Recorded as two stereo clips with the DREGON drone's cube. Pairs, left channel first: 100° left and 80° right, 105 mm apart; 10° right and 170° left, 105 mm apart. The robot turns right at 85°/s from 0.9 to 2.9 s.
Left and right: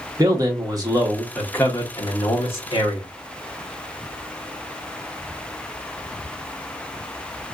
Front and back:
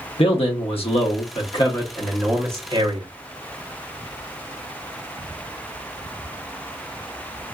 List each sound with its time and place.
0.2 s a man speaking: 30° right, 1.0 m; by 3.1 s 140° left, 1.0 m